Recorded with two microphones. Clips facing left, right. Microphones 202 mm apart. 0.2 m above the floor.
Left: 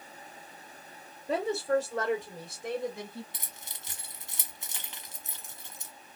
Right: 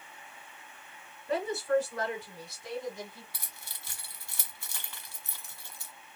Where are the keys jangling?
20° left (ahead or behind), 1.2 m.